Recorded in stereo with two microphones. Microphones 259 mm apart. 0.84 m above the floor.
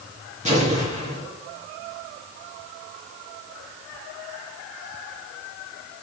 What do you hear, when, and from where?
0.5 s an explosion: 25° right (ahead or behind), 4 m